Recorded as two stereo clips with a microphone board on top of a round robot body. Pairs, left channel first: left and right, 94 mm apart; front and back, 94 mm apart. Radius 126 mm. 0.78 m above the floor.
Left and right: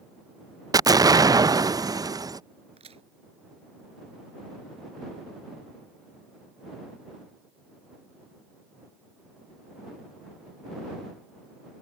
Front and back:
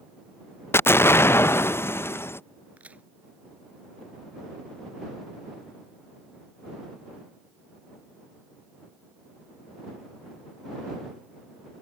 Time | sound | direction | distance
0.7 | an explosion | 55° right | ?
2.8 | a crack | 105° right | ?